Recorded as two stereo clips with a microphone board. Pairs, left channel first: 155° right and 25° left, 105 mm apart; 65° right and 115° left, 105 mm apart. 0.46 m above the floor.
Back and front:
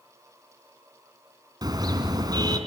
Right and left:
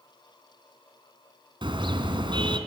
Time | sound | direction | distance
1.6 | a car horn | 75° left | 3 m